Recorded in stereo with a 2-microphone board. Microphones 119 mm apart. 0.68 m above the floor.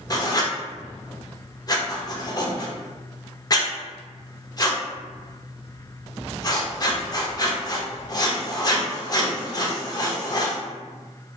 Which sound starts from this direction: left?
Writing, at 0.1 s.